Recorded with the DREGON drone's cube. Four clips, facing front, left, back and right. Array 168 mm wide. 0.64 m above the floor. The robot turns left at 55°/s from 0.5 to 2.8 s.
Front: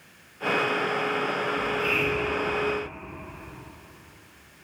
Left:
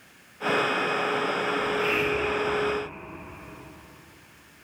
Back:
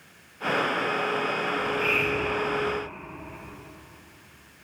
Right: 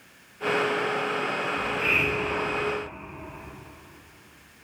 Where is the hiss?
70° right, 2.5 m; by 2.6 s 130° right, 2.5 m.